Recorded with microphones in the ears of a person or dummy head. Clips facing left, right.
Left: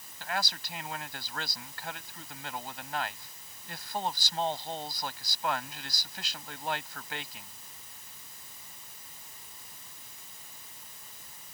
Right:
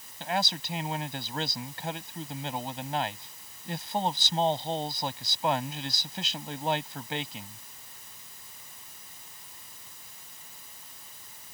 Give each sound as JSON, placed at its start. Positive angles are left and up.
{"t": 0.2, "sound": "a man speaking", "side_deg": -25}